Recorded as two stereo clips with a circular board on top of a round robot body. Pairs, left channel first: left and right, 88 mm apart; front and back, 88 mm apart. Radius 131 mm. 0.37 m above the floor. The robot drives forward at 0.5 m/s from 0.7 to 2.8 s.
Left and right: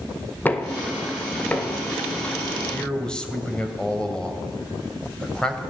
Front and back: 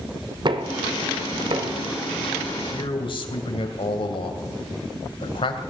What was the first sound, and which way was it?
Knocking, 160° left.